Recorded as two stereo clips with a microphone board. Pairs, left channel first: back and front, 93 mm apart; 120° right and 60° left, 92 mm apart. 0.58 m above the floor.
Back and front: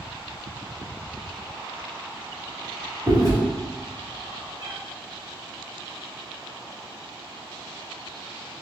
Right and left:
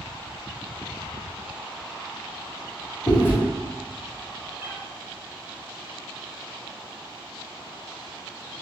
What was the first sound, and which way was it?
Chewing, 55° right.